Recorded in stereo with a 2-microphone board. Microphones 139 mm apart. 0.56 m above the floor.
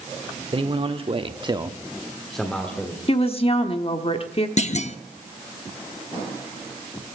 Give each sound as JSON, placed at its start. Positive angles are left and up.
{"t": 0.5, "sound": "a man speaking", "side_deg": -40, "distance_m": 1.4}
{"t": 3.1, "sound": "a woman speaking", "side_deg": 45, "distance_m": 1.1}
{"t": 4.6, "sound": "a clunk", "side_deg": 55, "distance_m": 0.6}